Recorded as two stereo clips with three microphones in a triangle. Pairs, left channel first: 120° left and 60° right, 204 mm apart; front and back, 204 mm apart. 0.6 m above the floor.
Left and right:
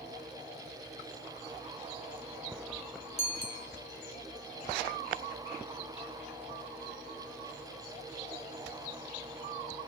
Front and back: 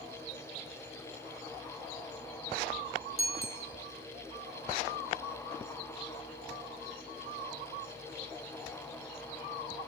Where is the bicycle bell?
5° right, 2 m.